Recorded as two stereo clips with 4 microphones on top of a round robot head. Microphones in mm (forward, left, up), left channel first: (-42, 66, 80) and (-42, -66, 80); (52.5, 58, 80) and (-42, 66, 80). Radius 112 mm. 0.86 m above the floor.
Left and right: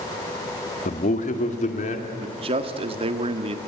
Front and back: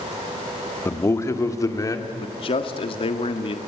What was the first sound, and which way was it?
A man speaking, 60° left.